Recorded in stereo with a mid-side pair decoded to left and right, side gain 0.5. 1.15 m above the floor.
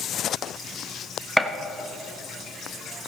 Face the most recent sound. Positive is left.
turn(degrees=-10)